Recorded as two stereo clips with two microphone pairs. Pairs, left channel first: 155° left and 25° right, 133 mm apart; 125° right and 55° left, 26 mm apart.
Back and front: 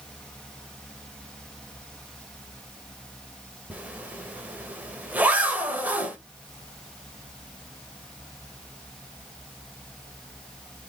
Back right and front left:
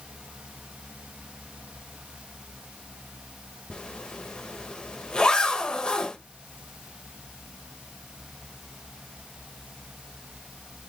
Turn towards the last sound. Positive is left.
turn(degrees=-95)